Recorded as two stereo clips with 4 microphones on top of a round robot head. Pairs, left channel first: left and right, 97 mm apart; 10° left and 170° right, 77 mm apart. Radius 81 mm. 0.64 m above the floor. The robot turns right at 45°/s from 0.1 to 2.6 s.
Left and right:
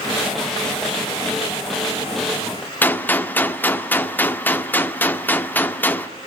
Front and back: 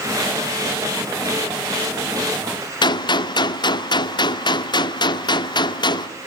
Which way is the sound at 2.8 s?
20° left.